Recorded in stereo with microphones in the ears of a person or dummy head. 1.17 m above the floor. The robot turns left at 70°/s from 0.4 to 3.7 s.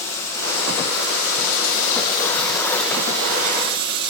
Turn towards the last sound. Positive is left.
turn(degrees=-60)